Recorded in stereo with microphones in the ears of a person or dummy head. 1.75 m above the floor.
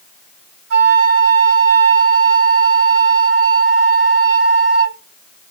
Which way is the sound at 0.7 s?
55° right (ahead or behind).